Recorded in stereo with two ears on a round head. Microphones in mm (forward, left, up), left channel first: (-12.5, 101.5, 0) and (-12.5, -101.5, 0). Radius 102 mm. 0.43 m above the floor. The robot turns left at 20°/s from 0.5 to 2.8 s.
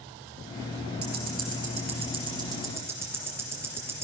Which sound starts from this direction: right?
Ticking, at 1.0 s.